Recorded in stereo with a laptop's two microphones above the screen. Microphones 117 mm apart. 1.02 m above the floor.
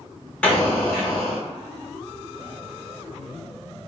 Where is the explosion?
10° left (ahead or behind), 0.8 m.